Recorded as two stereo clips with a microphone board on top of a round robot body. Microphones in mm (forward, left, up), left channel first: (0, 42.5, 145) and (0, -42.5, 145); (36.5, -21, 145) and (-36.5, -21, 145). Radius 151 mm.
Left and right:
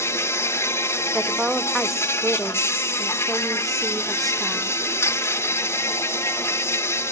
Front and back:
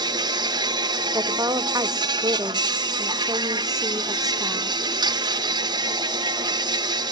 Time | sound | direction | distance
0.0 | an insect | 155° left | 1.1 m
1.1 | a woman speaking | straight behind | 1.4 m